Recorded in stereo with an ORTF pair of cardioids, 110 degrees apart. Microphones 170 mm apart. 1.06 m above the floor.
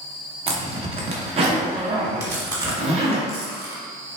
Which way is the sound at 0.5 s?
35° right.